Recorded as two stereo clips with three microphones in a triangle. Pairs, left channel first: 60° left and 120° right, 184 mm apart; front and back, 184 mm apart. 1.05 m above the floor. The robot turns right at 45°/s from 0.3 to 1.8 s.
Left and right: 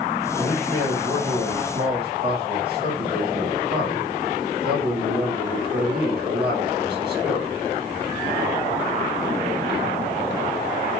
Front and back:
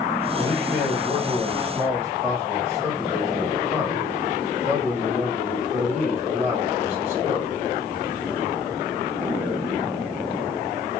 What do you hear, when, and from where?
0.3 s a man speaking: 170° right, 1.5 m; by 7.6 s 105° right, 1.5 m